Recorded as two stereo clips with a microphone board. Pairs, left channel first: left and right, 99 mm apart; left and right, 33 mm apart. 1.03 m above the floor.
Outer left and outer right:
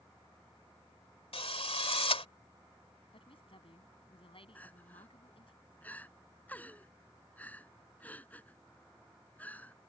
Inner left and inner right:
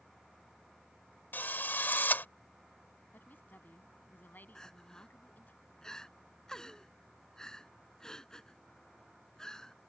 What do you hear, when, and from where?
1.3 s a drill: 80° left
3.1 s a woman speaking: 65° left (ahead or behind)
4.5 s crying: 15° left (ahead or behind)